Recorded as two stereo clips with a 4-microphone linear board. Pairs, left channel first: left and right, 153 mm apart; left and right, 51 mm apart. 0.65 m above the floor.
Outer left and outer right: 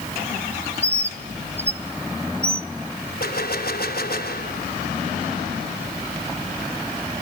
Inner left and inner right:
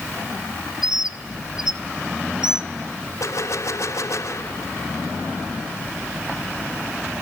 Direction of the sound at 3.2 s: 70° left (ahead or behind).